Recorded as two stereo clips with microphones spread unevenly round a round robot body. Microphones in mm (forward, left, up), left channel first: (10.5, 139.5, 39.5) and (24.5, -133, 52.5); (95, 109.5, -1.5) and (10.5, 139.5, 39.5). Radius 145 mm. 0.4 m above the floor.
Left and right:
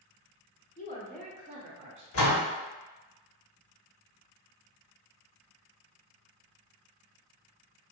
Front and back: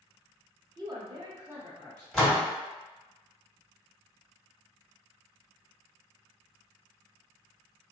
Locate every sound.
0.8 s a woman speaking: 110° left, 1.0 m; by 2.0 s 115° right, 1.2 m
2.1 s a door slam: 65° left, 1.8 m